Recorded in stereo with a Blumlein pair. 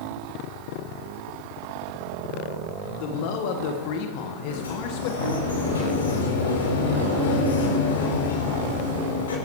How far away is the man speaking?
About 1.7 m.